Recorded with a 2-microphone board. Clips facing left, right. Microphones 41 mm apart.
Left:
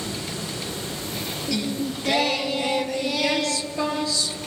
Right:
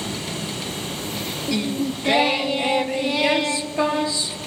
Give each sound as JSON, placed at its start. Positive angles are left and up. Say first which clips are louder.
{"t": 0.0, "sound": "running water", "louder": "right 2 dB", "side_deg": -60, "distance_m": 5.0}
{"t": 1.5, "sound": "singing", "louder": "right 3 dB", "side_deg": -25, "distance_m": 0.6}